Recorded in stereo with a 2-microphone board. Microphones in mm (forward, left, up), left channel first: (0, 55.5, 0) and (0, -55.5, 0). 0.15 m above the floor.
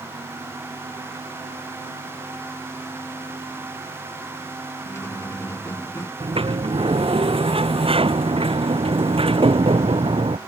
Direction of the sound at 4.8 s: 25° left (ahead or behind).